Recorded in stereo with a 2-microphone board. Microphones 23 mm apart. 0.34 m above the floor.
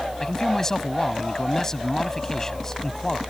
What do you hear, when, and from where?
0.2 s a man speaking: 20° left (ahead or behind)